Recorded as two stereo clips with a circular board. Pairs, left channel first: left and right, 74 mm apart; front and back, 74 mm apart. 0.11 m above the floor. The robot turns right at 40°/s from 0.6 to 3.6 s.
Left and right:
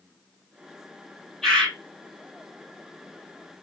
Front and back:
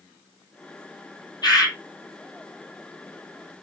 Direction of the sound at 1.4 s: 5° left.